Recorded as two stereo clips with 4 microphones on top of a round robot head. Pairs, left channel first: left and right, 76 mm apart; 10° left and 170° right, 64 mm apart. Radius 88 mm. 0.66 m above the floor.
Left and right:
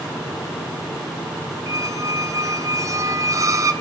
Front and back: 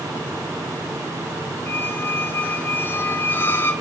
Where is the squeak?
45° right, 1.1 m.